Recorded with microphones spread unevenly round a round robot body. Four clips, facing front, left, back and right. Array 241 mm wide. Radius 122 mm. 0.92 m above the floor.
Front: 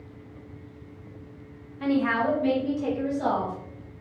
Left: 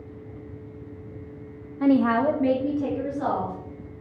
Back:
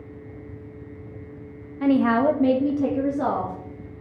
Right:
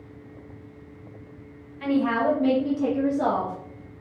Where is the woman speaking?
115° left, 0.9 m; by 3.5 s 145° right, 2.5 m.